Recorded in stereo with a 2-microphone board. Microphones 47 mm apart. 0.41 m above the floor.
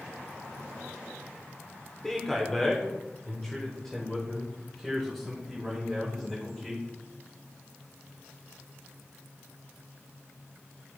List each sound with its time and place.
2.0 s a man speaking: 10° left (ahead or behind), 1.3 m; by 6.8 s 5° left (ahead or behind), 3.5 m